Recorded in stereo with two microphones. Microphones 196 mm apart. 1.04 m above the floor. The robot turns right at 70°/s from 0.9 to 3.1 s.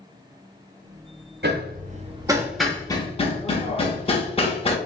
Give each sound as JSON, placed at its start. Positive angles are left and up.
{"t": 1.4, "sound": "hammering", "side_deg": -60, "distance_m": 0.6}